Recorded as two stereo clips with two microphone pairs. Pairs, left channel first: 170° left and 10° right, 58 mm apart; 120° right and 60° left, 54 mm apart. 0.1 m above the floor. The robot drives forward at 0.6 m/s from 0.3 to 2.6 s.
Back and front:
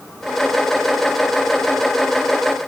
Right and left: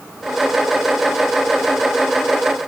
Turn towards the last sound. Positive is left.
No sound to turn to.